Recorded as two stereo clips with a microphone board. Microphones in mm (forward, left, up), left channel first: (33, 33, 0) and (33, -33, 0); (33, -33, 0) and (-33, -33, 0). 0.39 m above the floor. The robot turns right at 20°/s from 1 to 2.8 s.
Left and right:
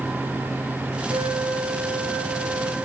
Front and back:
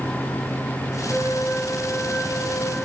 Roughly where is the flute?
Right.